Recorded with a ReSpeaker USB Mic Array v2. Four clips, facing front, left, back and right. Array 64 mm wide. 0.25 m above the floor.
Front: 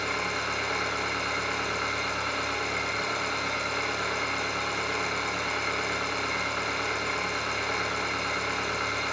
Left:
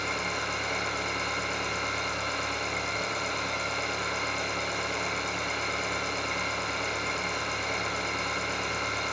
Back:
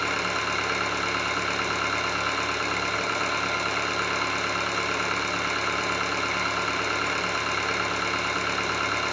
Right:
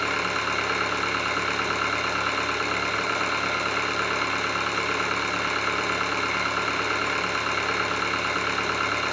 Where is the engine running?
115° right, 2 m.